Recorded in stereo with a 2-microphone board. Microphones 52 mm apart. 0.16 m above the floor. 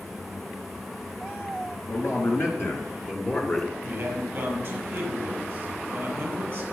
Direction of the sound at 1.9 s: 60° left (ahead or behind).